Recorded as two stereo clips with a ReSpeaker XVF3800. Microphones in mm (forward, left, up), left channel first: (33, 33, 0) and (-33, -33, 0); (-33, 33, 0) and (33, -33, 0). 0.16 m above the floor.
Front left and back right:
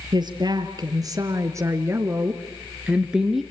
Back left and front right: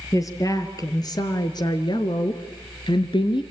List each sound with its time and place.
0.1 s a woman speaking: 175° right, 3 m; by 3.4 s 135° left, 2.0 m